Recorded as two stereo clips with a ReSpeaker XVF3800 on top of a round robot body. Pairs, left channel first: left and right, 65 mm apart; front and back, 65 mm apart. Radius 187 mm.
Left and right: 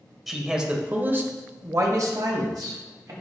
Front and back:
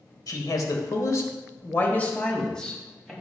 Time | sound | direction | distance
0.3 | a man speaking | 5° right | 2.0 m